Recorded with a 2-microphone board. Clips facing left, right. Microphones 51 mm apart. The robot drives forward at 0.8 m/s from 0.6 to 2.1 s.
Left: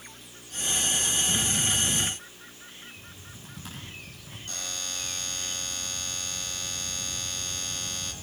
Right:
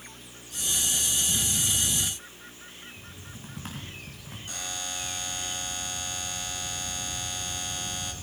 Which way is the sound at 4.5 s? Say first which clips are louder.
Right 1 dB; 10° right (ahead or behind).